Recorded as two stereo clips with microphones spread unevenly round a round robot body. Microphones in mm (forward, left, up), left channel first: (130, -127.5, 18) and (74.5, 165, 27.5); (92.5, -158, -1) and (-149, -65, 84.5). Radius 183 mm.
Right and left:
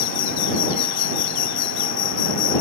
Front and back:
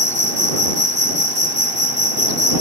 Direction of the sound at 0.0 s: 130° right.